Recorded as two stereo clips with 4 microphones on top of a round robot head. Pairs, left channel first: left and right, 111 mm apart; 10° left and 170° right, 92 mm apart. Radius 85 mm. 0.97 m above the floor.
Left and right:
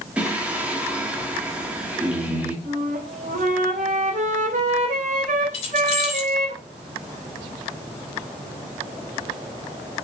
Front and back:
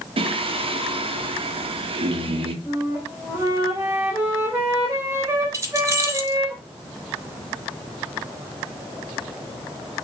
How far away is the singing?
About 1.4 m.